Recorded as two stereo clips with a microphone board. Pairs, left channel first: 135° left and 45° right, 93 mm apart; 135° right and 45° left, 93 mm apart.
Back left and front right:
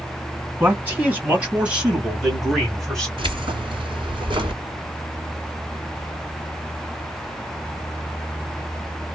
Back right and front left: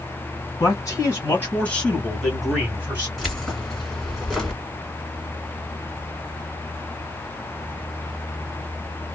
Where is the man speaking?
105° right, 1.9 m; by 3.1 s 60° left, 1.5 m.